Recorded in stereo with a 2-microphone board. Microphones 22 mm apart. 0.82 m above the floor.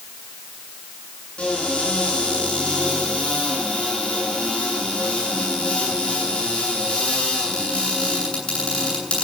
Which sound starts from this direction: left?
A cupboard door, at 1.4 s.